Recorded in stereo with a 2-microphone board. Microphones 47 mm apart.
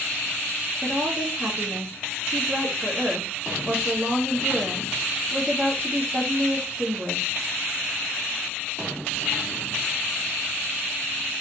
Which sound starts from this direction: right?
A woman speaking, at 0.8 s.